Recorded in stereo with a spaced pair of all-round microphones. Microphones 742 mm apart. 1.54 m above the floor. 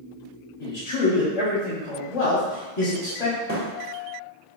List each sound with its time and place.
0.6 s a man speaking: 45° left (ahead or behind), 0.9 m
3.5 s a thud: 25° right (ahead or behind), 1.3 m